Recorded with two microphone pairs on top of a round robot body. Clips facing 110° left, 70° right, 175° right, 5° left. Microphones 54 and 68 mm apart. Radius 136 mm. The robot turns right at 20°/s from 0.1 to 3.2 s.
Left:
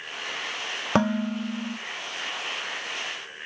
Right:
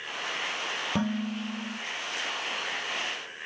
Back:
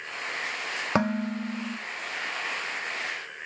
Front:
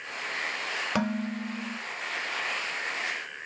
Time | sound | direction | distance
0.9 | dishes clattering | 120° left | 0.8 m